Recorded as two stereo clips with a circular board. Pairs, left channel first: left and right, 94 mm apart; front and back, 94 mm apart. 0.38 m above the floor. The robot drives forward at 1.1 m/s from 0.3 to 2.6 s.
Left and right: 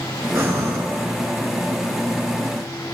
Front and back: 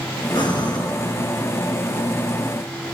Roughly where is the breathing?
Ahead right.